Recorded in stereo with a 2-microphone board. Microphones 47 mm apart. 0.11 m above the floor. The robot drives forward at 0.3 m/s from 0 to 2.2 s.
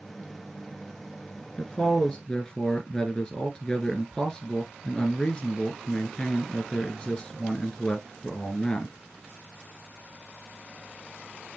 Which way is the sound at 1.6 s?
20° left (ahead or behind).